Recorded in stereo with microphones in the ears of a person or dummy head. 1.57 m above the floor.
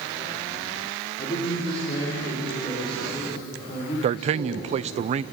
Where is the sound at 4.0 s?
35° right (ahead or behind), 0.6 m.